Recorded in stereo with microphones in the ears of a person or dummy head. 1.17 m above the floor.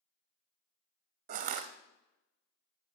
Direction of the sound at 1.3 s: 35° right (ahead or behind).